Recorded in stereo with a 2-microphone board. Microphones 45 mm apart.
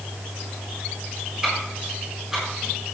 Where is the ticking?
10° right (ahead or behind), 7 m.